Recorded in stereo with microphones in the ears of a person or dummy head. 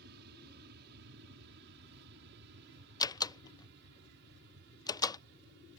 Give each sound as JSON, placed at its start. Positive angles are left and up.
{"t": 0.0, "sound": "an aircraft", "side_deg": -55}
{"t": 3.0, "sound": "a door slam", "side_deg": 20}